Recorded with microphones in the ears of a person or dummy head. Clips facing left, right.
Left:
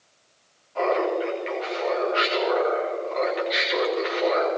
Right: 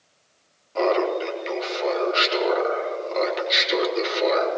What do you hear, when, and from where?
0.8 s laughter: 50° right (ahead or behind), 3 m